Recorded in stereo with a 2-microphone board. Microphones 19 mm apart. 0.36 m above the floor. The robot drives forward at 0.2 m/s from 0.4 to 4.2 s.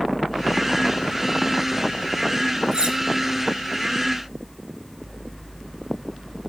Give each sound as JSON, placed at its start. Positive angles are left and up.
{"t": 2.7, "sound": "cutlery clinking", "side_deg": -50, "distance_m": 1.3}